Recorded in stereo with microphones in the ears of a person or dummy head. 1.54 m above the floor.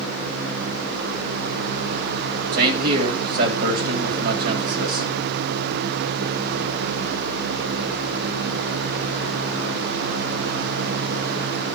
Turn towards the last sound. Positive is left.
turn(degrees=-50)  # may be behind; listen again after turning